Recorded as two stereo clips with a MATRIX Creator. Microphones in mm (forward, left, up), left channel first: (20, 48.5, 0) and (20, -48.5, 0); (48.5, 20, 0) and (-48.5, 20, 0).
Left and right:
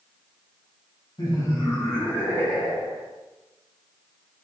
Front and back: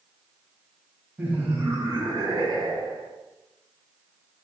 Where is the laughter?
110° left, 1.3 m; by 3.1 s straight behind, 1.4 m.